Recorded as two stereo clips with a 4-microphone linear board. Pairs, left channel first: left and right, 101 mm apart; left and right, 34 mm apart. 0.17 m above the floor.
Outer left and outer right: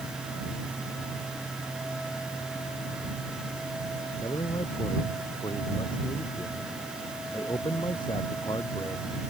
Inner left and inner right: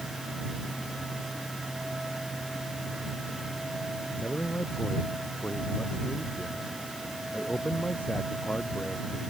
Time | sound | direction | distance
4.2 | a man speaking | 50° left (ahead or behind) | ?